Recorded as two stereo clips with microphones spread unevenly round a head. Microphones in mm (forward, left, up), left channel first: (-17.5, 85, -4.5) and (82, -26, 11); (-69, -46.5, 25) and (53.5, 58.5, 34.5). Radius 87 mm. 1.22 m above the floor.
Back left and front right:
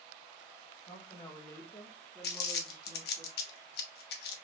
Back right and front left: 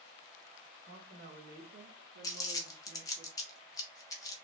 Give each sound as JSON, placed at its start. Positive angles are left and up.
{"t": 0.9, "sound": "a woman speaking", "azimuth_deg": 75, "distance_m": 1.9}
{"t": 2.2, "sound": "crumpling", "azimuth_deg": 150, "distance_m": 0.9}